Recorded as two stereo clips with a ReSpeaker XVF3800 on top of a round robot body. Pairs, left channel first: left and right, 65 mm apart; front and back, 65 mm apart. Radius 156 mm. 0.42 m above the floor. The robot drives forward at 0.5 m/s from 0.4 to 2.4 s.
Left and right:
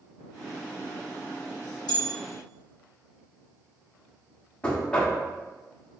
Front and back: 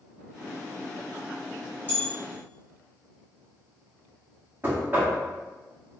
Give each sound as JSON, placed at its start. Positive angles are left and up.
{"t": 1.9, "sound": "a bell", "azimuth_deg": 60, "distance_m": 0.8}
{"t": 4.6, "sound": "knocking", "azimuth_deg": 150, "distance_m": 0.9}